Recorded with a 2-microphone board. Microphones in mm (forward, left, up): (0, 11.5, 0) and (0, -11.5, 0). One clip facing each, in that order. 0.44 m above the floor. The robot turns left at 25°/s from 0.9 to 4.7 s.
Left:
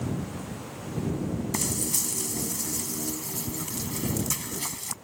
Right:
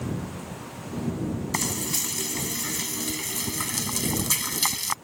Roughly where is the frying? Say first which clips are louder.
Right 3 dB; ahead right.